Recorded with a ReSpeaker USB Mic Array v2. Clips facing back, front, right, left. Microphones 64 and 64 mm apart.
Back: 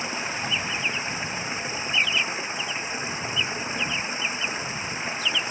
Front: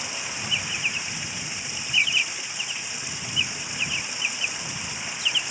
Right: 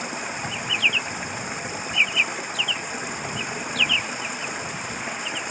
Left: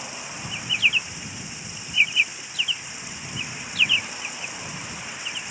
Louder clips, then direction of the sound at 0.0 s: Back 4 dB, right 6 dB; 125° right.